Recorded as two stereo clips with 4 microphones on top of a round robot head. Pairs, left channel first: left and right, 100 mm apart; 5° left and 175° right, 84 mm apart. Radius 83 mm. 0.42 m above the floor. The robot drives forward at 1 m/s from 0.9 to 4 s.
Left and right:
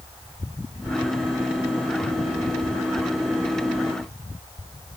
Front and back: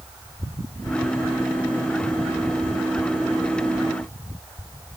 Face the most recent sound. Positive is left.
No sound to turn to.